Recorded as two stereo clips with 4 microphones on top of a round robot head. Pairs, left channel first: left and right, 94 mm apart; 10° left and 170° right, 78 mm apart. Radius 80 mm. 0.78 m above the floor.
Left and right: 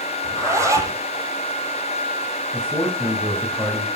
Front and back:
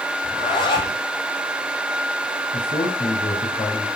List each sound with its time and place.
0.2 s a zipper: 30° right, 5 m
2.5 s a man speaking: 5° left, 4.5 m